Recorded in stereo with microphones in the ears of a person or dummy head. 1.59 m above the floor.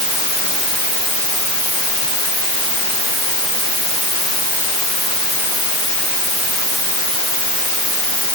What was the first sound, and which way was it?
Only background noise.